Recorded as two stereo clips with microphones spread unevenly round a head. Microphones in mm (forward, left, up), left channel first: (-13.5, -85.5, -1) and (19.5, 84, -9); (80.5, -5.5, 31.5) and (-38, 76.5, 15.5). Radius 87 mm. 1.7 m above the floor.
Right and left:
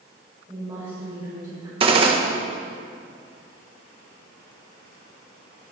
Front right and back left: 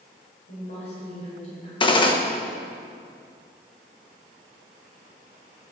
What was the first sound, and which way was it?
A woman speaking, 5° left.